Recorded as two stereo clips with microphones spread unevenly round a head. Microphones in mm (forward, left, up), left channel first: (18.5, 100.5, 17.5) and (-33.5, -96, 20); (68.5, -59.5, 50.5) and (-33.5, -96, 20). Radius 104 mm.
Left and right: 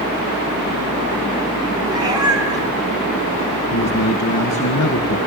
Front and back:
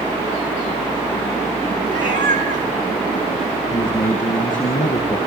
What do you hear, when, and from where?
1.9 s a cat meowing: 175° right, 4 m
3.7 s a man speaking: 60° left, 1.9 m